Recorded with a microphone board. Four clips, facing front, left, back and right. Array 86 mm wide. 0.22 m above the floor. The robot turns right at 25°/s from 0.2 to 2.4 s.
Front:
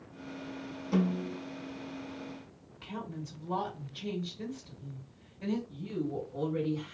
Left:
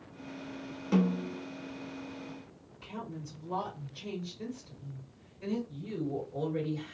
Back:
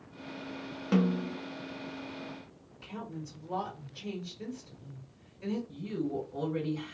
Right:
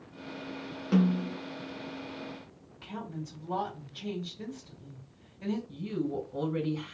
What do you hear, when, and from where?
0.9 s a snare drum: 165° right, 0.9 m; by 1.4 s 155° right, 0.9 m
2.8 s a woman speaking: 15° right, 2.0 m
5.7 s a woman speaking: 105° right, 1.7 m